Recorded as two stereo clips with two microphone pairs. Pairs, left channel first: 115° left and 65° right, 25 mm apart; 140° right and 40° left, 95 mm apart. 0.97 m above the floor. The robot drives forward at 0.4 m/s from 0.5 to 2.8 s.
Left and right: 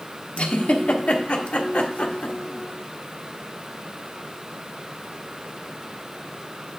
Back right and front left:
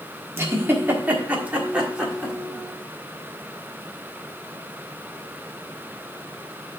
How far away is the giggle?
About 1.4 m.